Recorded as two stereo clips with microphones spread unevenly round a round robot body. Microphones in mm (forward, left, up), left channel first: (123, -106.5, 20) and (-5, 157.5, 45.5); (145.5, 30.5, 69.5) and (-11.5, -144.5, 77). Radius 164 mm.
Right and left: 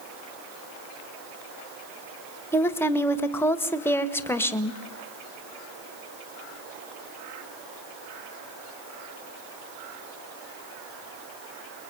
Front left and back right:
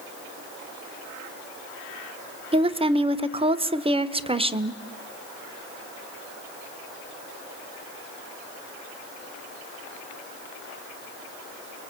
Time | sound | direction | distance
2.5 | a woman speaking | 120° right | 1.4 m